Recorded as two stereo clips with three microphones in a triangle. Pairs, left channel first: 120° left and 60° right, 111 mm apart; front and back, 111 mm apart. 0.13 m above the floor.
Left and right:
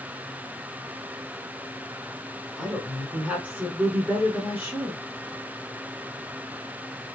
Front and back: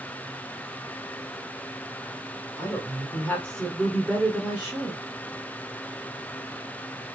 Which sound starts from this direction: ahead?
A woman speaking, at 2.6 s.